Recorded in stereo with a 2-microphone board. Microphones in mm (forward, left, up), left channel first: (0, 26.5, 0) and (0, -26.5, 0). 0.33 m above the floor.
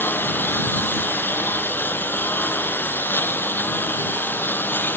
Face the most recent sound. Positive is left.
turn(degrees=40)  # may be behind; listen again after turning